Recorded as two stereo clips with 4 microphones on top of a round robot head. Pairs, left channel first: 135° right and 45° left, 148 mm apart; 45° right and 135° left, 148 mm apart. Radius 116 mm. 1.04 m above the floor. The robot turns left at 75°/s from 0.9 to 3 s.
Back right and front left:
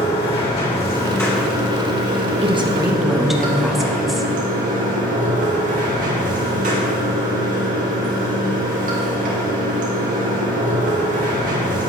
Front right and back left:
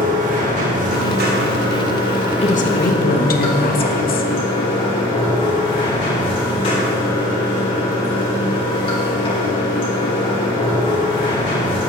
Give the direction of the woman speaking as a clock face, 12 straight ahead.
12 o'clock.